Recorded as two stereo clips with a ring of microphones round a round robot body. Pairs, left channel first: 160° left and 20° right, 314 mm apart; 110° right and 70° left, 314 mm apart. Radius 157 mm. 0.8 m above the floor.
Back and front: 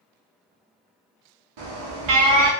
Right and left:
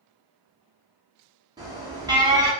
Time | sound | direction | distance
1.6 | an alarm | 10° right | 0.9 m